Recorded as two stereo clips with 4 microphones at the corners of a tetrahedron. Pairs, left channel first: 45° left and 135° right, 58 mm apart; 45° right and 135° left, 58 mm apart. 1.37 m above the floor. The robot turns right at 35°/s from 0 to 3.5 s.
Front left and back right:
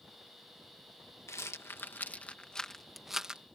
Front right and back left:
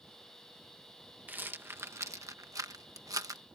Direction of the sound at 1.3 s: 75° left.